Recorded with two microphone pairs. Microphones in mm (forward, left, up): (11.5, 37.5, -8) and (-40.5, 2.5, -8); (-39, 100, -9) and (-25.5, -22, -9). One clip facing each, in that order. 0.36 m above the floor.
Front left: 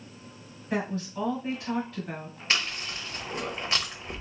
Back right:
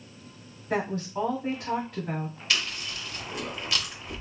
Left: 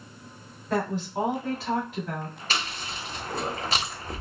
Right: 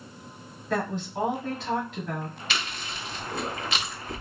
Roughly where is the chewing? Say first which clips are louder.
Front left 2 dB, left 4 dB; left.